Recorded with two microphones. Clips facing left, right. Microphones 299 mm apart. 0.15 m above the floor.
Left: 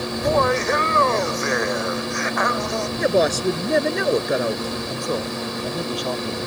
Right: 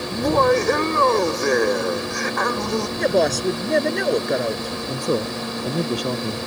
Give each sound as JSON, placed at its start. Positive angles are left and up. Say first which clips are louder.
{"t": 0.1, "sound": "laughter", "louder": "right 3 dB", "side_deg": -50}
{"t": 3.0, "sound": "a woman speaking", "louder": "left 1 dB", "side_deg": 0}
{"t": 4.9, "sound": "a man speaking", "louder": "right 7 dB", "side_deg": -35}